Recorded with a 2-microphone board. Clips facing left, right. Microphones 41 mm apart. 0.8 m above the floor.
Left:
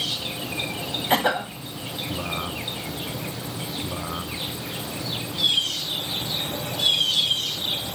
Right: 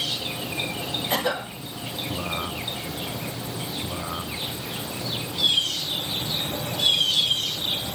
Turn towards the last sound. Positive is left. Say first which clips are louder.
# left 5 dB
turn(degrees=30)  # may be behind; listen again after turning